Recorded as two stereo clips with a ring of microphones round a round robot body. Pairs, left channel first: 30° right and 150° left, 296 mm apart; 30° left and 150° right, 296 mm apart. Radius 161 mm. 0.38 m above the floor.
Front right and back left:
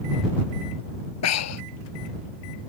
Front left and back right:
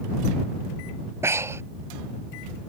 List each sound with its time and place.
1.2 s breathing: 70° right